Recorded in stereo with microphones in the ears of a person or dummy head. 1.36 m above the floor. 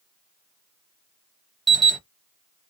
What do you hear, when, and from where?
1.7 s an alarm: centre (ahead or behind), 0.5 m